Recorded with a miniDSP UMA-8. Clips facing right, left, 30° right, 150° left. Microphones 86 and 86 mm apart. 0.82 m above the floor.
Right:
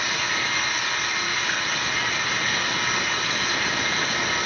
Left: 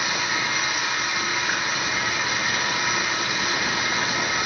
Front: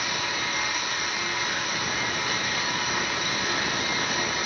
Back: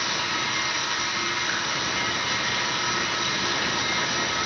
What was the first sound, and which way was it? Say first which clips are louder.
Running water: left 1 dB, back 1 dB; 165° left.